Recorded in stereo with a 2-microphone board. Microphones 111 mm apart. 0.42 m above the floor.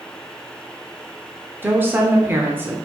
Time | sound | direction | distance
1.6 | a woman speaking | 20° right (ahead or behind) | 0.8 m